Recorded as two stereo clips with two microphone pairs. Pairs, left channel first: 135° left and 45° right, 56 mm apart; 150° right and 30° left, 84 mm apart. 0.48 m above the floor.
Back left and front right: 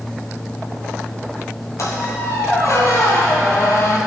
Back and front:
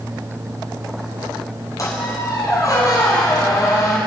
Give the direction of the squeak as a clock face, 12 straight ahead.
7 o'clock.